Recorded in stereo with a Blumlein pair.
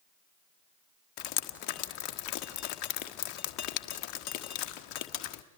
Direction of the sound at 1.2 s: 40° left.